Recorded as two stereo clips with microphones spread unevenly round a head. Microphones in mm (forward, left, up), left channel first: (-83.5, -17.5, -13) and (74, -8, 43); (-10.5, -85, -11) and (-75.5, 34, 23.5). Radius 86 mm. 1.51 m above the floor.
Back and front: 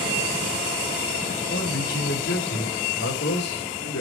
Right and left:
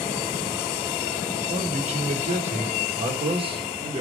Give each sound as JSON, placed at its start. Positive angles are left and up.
{"t": 1.5, "sound": "a man speaking", "azimuth_deg": 150, "distance_m": 4.5}